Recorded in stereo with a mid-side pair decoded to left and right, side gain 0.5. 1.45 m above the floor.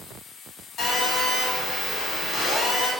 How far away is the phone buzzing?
About 1.7 m.